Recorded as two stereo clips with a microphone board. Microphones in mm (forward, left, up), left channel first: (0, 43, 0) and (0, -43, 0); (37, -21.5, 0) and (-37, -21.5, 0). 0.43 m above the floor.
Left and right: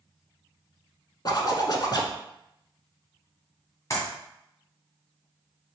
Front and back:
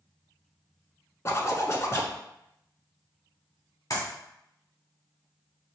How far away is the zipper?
About 0.8 m.